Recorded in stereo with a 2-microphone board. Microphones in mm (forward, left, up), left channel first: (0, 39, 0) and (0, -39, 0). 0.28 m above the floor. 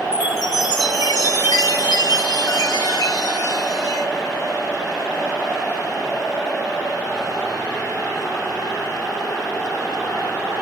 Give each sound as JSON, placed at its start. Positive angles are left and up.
{"t": 0.1, "sound": "a chime", "side_deg": 55, "distance_m": 2.5}